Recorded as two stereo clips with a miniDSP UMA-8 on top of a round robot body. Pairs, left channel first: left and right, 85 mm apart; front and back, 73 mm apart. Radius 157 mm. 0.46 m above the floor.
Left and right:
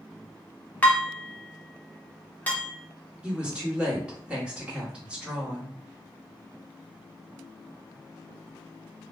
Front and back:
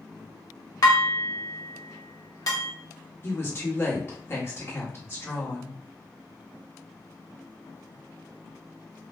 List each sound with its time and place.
0.8 s dishes clattering: 20° left, 1.0 m
3.2 s a woman speaking: 20° right, 1.5 m